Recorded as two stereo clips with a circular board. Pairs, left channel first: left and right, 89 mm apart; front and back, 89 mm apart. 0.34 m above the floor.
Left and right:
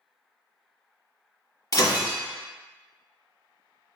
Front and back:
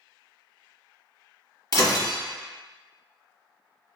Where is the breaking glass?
40° left, 1.2 m.